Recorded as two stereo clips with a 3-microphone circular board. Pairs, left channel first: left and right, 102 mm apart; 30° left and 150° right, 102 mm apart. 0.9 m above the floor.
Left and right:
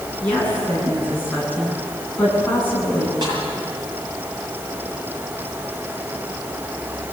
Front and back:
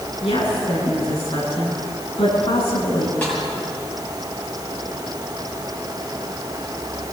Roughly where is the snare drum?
Ahead right.